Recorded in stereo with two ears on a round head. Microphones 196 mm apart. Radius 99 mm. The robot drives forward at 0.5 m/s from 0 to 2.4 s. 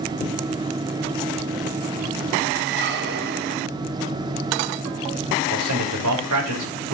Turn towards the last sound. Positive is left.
turn(degrees=-75)  # may be behind; listen again after turning